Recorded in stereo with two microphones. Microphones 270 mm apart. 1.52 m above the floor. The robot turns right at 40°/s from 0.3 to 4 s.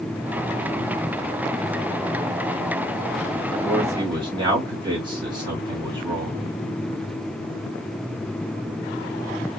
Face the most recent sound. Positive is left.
turn(degrees=-15)  # may be behind; listen again after turning